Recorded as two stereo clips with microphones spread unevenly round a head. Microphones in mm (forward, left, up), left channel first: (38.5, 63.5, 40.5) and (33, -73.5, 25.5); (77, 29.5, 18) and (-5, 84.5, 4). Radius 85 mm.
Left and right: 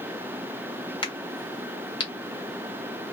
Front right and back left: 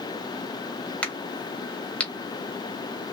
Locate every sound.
1.0 s a crack: 40° left, 1.5 m